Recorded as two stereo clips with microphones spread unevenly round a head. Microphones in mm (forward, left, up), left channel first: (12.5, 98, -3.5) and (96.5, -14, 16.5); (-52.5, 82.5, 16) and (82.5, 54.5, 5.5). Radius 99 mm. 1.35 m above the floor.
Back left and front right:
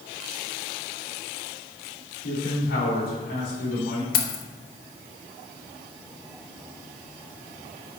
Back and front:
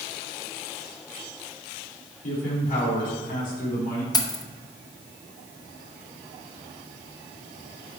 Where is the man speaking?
145° left, 3.5 m.